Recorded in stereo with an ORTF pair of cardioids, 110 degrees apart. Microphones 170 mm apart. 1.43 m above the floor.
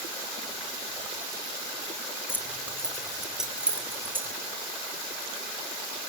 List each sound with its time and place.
2.3 s keys jangling: 15° left, 4.5 m; by 4.3 s 15° right, 6.5 m